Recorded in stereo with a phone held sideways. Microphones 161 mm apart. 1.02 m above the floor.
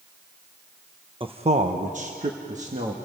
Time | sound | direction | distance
1.2 | a man speaking | 30° right (ahead or behind) | 1.0 m